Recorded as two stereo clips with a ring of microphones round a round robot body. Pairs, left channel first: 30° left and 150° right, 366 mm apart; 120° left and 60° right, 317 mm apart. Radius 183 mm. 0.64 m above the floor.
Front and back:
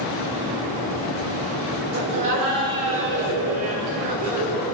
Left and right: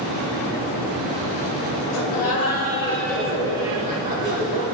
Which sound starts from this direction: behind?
Laughter, at 1.9 s.